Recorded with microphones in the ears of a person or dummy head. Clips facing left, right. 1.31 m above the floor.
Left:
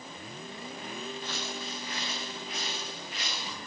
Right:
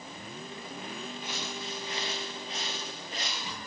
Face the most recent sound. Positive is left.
turn(degrees=-45)  # may be behind; listen again after turning